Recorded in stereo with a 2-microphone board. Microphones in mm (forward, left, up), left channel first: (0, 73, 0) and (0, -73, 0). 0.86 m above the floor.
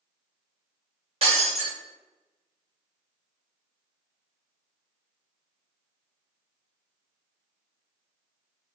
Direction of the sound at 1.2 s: 45° right (ahead or behind).